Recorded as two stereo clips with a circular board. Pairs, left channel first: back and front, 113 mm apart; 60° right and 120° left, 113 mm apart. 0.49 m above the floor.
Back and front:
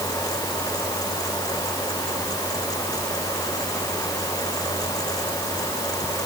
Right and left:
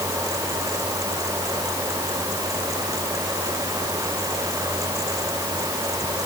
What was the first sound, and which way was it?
Only background noise.